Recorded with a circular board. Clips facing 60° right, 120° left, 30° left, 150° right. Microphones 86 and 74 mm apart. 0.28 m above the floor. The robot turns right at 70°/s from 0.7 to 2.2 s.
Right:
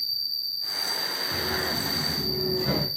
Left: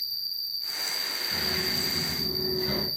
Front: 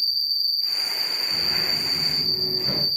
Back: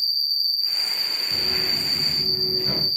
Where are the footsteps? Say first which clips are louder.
Right 4 dB, back 1 dB; 105° right, 2.5 m; by 2.9 s 40° right, 0.9 m.